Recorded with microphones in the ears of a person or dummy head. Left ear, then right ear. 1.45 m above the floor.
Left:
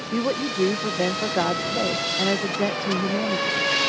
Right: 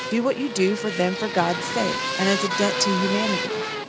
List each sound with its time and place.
0.1 s a woman speaking: 80° right